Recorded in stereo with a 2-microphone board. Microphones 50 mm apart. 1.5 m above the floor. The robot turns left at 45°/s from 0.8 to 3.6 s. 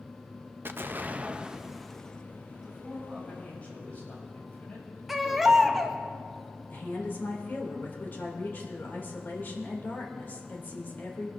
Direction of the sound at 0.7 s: 135° right.